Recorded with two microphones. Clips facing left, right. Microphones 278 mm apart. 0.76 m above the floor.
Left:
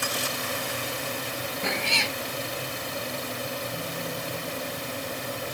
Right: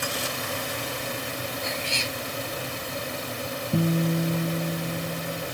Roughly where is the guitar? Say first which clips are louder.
Right 10 dB; right.